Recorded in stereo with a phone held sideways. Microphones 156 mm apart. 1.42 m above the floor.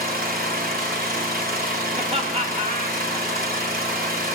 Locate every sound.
0.0 s an engine running: 70° right (ahead or behind), 2.5 m
1.9 s laughter: 40° right (ahead or behind), 3 m